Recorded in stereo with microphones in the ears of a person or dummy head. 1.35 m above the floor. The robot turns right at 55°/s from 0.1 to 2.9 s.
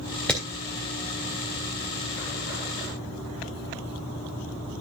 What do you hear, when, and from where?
0.3 s hammering: 10° left (ahead or behind), 3 m; by 0.4 s centre (ahead or behind), 3 m